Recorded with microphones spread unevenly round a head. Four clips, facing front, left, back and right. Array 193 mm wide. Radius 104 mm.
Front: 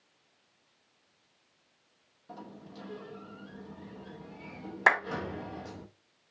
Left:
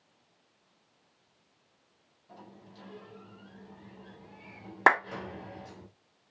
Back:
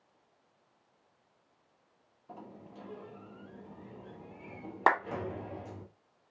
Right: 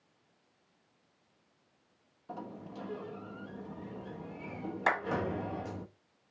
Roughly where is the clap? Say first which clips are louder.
Left 8 dB, even; left.